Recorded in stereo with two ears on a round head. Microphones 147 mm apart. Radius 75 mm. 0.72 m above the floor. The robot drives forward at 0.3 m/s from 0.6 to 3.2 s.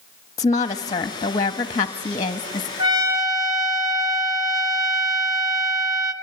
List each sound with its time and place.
0.4 s a woman speaking: 20° left (ahead or behind), 1.0 m; by 2.7 s 25° left (ahead or behind), 0.9 m
2.8 s a trumpet: 25° right (ahead or behind), 1.7 m; by 6.1 s 20° right (ahead or behind), 1.8 m